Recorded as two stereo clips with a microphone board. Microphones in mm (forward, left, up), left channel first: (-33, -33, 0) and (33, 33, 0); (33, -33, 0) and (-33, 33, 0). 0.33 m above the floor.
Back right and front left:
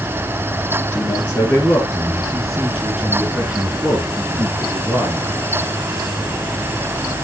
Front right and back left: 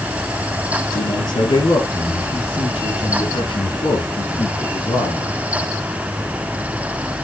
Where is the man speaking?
65° right, 4 m; by 5.3 s 10° right, 4 m.